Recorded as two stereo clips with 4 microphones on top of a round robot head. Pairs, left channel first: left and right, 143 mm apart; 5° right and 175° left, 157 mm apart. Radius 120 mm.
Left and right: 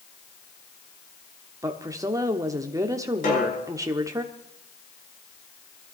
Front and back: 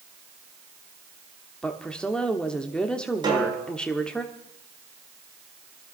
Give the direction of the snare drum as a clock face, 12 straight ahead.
8 o'clock.